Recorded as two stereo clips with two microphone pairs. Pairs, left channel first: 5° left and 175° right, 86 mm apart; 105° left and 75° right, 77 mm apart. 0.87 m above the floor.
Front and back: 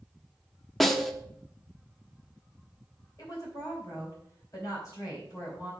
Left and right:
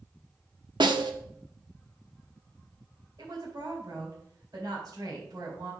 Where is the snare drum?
85° right, 0.8 m.